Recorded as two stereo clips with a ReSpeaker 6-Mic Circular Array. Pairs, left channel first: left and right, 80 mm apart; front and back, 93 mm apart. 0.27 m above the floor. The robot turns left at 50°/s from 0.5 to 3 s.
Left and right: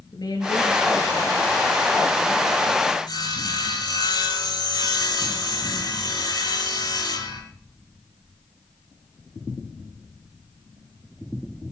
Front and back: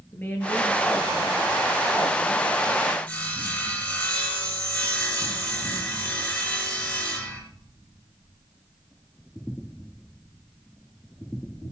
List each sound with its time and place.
0.1 s a woman speaking: 70° left, 5 m; by 3.0 s 55° right, 5 m
3.1 s sawing: 75° left, 4.5 m